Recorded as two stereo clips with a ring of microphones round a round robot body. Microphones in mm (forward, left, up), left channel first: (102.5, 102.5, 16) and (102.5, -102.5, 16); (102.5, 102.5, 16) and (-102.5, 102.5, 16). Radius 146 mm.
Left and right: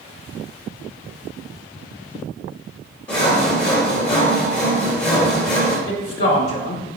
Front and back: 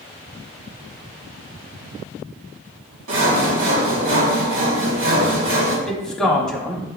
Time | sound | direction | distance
3.1 | sawing | 160° left | 1.2 m
5.9 | a man speaking | 85° left | 1.0 m